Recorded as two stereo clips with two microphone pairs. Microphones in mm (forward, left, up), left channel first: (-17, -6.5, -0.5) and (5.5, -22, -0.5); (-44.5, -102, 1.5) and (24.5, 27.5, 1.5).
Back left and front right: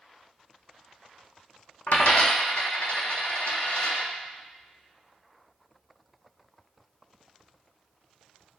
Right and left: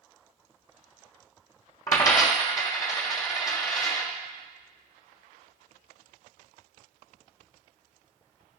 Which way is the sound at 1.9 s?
Straight behind.